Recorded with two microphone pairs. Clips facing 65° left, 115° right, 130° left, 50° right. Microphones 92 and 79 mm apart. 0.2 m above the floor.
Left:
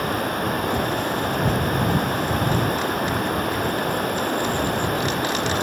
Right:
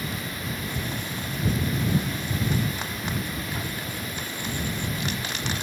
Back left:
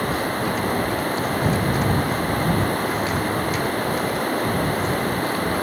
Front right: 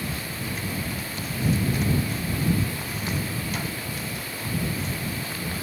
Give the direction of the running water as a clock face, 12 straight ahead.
9 o'clock.